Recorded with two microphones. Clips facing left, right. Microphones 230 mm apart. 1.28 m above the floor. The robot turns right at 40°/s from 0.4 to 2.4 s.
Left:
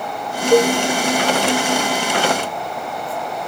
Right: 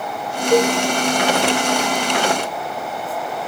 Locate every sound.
0.5 s a cowbell: 10° left (ahead or behind), 0.6 m; by 0.7 s 5° left (ahead or behind), 0.6 m